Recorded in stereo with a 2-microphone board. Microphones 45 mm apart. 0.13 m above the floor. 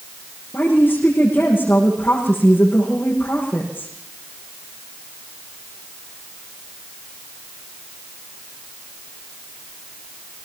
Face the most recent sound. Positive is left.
turn(degrees=40)  # may be behind; listen again after turning